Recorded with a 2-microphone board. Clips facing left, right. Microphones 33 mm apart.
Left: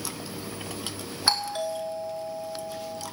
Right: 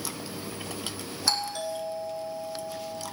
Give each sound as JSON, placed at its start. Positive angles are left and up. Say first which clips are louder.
{"t": 1.3, "sound": "a doorbell", "louder": "left 3 dB", "side_deg": 30, "distance_m": 2.5}